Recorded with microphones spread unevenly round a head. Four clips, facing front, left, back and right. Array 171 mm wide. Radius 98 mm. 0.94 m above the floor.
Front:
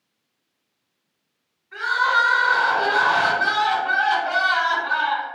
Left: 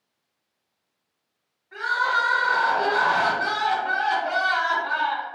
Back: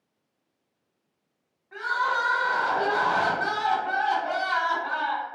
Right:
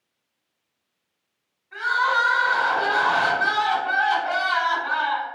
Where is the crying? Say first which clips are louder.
Right 2 dB, front 6 dB; 165° left, 1.3 m.